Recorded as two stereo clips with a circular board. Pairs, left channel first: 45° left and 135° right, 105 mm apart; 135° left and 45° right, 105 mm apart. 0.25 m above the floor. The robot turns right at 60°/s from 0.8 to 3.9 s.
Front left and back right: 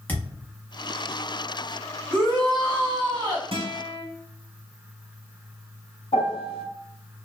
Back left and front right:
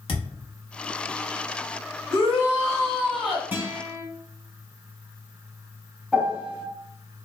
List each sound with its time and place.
0.1 s a thud: 115° left, 0.7 m
2.1 s a shout: 175° left, 1.4 m; by 3.4 s 105° right, 1.4 m
3.5 s a guitar: 115° right, 1.0 m; by 4.0 s 90° right, 1.0 m
6.1 s a piano: 35° left, 1.0 m